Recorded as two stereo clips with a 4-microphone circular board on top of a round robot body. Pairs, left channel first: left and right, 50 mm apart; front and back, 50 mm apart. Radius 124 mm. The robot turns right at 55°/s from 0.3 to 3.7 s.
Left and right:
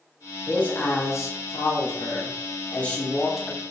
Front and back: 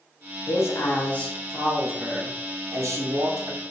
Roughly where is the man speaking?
Ahead left.